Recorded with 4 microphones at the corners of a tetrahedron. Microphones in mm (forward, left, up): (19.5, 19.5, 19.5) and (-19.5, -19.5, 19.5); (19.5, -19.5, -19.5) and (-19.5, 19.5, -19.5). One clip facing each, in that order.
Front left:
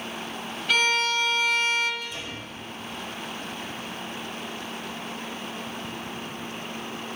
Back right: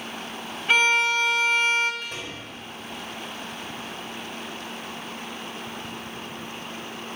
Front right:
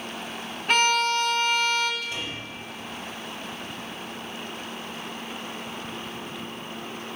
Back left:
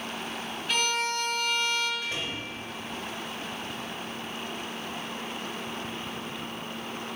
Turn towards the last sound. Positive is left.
turn(degrees=-170)